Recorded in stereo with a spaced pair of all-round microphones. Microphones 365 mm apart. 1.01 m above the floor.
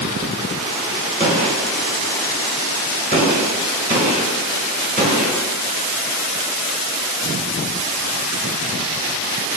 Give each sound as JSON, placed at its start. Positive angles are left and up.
{"t": 1.2, "sound": "a gunshot", "side_deg": -25, "distance_m": 1.2}